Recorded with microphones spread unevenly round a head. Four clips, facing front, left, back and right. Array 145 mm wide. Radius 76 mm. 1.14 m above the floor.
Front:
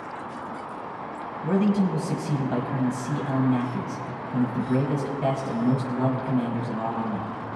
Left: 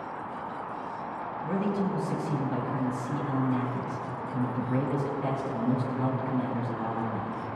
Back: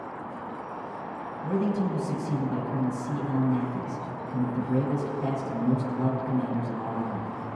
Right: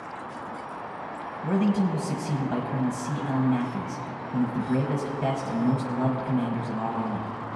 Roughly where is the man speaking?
Ahead right.